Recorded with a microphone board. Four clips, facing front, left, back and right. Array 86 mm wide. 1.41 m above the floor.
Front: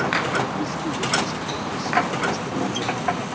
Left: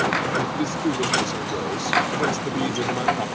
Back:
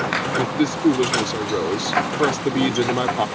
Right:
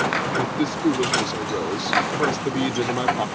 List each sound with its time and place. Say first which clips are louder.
0.4 s a man speaking: right 2 dB, back 5 dB; 165° right